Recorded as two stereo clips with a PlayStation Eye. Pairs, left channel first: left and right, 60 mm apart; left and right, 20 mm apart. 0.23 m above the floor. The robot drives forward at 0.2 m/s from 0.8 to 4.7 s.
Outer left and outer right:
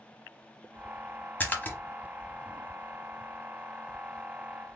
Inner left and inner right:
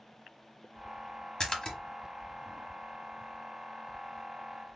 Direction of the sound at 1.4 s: 35° left (ahead or behind).